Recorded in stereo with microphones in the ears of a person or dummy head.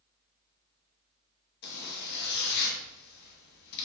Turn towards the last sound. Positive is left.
turn(degrees=55)  # may be behind; listen again after turning